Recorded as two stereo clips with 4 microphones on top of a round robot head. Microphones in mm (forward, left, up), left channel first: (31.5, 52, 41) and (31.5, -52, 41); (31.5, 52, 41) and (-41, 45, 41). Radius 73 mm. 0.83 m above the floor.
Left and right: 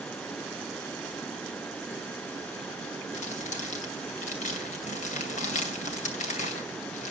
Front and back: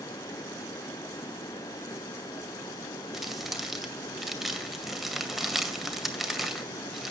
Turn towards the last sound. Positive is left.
turn(degrees=100)